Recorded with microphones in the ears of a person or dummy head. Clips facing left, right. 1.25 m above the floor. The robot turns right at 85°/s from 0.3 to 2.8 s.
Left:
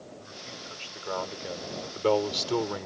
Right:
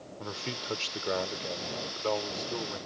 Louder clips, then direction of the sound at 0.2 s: Right 6 dB; 100° right.